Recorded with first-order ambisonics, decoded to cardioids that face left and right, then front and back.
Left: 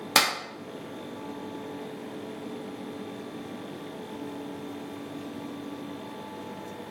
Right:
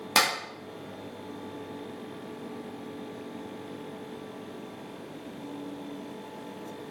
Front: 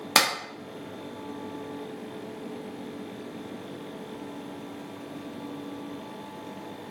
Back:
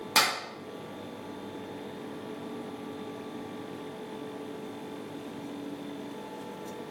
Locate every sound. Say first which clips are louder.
0.1 s a clap: left 1 dB, front 3 dB; 15° left, 0.6 m